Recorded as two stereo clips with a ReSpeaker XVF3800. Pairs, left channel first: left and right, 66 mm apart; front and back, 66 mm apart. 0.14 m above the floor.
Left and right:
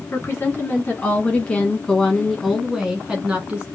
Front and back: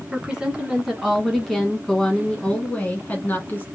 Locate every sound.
0.1 s a woman speaking: 110° left, 1.6 m; by 3.7 s 35° right, 1.5 m